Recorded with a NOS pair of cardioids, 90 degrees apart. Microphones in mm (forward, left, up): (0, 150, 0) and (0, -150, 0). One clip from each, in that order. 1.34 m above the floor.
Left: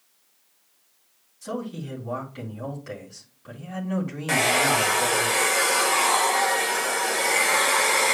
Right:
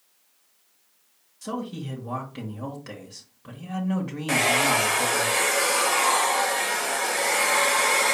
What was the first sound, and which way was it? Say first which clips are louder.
A man speaking: even; 35° right.